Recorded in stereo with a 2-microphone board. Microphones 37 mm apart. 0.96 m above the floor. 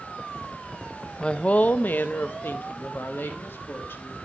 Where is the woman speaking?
20° left (ahead or behind), 0.5 m; by 4.2 s 80° left, 1.7 m.